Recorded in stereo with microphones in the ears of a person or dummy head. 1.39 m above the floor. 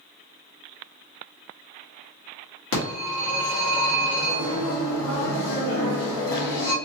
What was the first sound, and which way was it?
A phone ringing, 80° left.